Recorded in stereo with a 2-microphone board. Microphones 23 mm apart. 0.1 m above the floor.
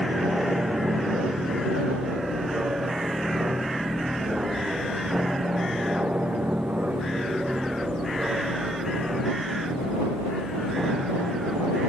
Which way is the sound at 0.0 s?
60° right (ahead or behind).